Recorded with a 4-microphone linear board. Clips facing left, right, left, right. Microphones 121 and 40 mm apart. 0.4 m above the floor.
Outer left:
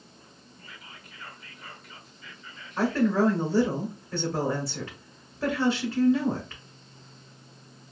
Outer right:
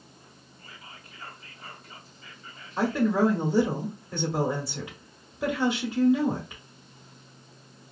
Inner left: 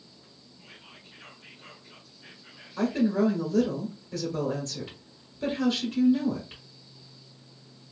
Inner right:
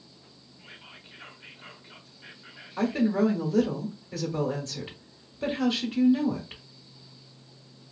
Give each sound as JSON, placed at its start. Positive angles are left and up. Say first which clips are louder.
{"t": 0.6, "sound": "whispering", "louder": "outer right 1 dB, inner right 3 dB", "side_deg": -35, "distance_m": 1.0}
{"t": 2.8, "sound": "a woman speaking", "louder": "even, even", "side_deg": -10, "distance_m": 1.0}